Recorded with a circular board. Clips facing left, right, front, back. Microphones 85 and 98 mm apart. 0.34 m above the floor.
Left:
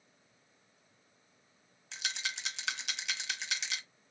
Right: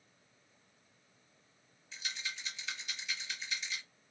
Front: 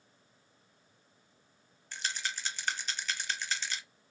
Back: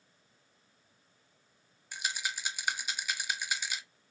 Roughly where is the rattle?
Left.